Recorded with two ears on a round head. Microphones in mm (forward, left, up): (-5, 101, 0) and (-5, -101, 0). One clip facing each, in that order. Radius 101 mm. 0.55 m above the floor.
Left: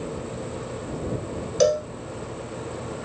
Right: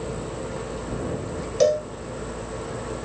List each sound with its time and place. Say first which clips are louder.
1.6 s a cowbell: even; 15° left (ahead or behind)